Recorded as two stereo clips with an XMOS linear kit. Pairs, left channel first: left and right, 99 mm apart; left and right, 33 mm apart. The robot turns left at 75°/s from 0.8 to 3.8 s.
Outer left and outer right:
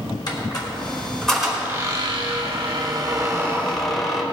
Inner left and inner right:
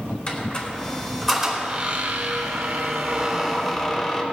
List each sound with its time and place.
0.3 s a squeak: 40° left, 2.5 m; by 4.2 s 175° left, 2.5 m